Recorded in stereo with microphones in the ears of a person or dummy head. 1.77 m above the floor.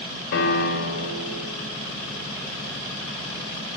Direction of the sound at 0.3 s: 45° left (ahead or behind).